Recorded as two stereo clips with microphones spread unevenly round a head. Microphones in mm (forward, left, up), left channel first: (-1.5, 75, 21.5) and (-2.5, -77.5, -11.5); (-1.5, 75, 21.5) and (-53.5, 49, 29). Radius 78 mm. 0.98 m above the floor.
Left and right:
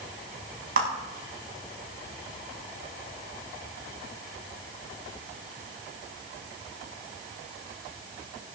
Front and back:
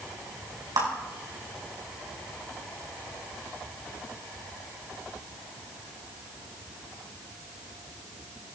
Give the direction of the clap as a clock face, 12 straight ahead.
4 o'clock.